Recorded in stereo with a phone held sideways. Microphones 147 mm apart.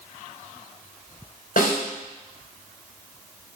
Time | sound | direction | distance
1.6 | a snare drum | 80° left | 3.5 m